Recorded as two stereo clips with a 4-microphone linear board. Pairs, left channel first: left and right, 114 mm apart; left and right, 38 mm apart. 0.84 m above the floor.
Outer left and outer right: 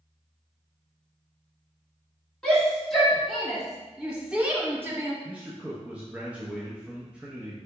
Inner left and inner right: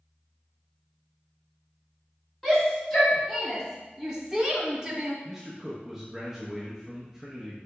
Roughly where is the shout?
Centre.